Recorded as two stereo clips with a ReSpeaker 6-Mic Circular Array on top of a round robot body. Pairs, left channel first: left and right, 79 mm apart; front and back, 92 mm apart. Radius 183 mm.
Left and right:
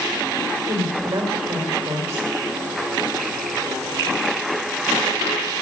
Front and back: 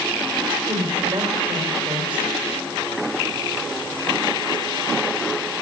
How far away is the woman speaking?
About 5 m.